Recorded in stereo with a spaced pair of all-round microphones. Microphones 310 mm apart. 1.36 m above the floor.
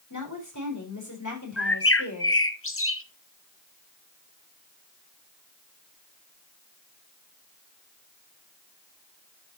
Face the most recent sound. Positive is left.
turn(degrees=45)  # may be behind; listen again after turning